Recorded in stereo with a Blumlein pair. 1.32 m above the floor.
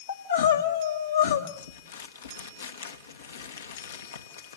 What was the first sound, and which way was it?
Crying, 65° left.